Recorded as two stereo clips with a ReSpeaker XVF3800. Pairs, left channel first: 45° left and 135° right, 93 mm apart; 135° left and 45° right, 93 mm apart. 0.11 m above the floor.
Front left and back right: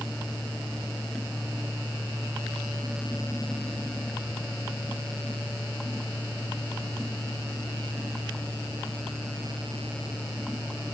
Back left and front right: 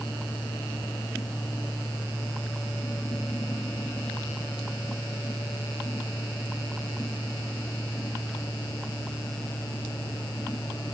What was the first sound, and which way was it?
Only background noise.